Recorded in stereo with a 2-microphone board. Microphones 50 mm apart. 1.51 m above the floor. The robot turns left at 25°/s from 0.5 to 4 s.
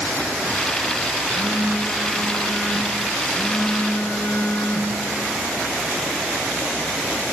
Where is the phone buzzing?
155° right, 0.7 m; by 5.0 s 135° left, 0.7 m.